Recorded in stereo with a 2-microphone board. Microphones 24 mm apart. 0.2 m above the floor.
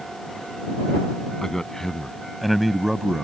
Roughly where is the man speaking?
Left.